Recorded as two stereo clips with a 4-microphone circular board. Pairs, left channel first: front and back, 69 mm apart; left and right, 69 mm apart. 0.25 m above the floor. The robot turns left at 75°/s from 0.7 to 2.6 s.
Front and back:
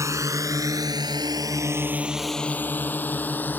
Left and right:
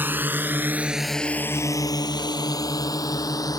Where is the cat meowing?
No cat meowing in this recording.